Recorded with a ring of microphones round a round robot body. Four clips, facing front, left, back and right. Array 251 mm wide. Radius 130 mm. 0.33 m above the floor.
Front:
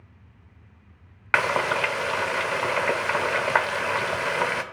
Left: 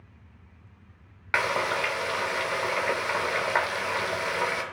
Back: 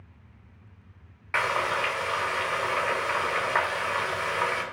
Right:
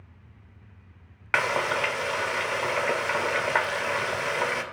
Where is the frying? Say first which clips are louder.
Right 1 dB, front 4 dB; 10° right, 0.5 m.